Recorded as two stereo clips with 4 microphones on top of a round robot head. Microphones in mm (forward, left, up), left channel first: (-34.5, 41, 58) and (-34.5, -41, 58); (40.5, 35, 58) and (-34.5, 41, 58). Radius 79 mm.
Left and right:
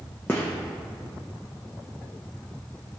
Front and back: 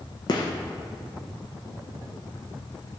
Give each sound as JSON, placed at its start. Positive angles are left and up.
{"t": 0.3, "sound": "a gunshot", "azimuth_deg": 15, "distance_m": 0.9}